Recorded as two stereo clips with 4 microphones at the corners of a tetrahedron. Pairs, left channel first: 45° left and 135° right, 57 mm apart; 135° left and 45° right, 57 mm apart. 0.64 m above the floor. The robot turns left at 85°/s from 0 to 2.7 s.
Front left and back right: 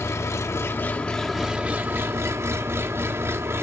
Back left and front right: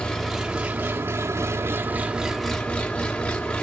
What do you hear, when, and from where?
0.0 s an engine running: 65° left, 1.0 m; by 3.6 s 165° right, 1.0 m